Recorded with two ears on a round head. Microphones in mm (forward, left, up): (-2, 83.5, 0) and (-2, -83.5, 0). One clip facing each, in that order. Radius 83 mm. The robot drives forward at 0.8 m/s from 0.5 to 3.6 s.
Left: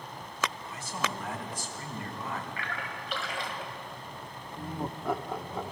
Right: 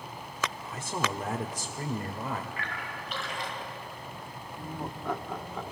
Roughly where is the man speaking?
Right.